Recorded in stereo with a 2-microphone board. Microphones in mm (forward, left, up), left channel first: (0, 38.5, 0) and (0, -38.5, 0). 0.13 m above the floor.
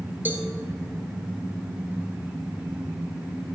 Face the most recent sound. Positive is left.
turn(degrees=-25)  # may be behind; listen again after turning